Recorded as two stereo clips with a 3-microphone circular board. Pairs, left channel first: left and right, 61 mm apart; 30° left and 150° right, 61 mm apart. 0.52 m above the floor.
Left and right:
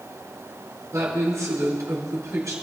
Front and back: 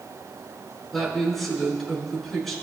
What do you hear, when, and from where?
0.9 s a woman speaking: 55° right, 6 m